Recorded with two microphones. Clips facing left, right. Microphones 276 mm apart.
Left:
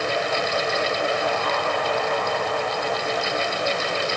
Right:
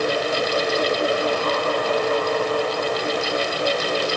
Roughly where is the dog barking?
No dog barking in this recording.